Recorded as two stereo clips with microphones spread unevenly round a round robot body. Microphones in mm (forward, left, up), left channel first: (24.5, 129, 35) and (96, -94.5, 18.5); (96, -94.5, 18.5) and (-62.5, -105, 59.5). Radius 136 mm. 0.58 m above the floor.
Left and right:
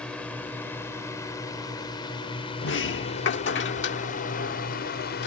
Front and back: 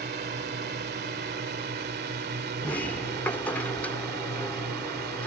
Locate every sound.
0.0 s a drone: 165° right; by 5.3 s 155° left
2.6 s a sliding door: 75° left